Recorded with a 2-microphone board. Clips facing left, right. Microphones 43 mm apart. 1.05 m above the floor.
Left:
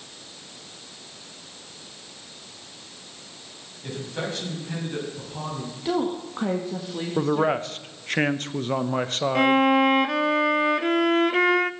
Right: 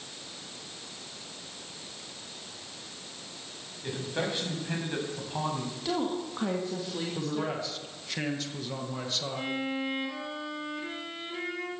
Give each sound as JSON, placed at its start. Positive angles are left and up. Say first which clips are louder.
{"t": 3.8, "sound": "a man speaking", "louder": "left 1 dB", "side_deg": -10, "distance_m": 7.5}
{"t": 5.8, "sound": "a woman speaking", "louder": "left 6 dB", "side_deg": 15, "distance_m": 1.7}
{"t": 7.2, "sound": "a man speaking", "louder": "left 13 dB", "side_deg": 45, "distance_m": 1.0}
{"t": 9.3, "sound": "a violin", "louder": "left 17 dB", "side_deg": 70, "distance_m": 0.6}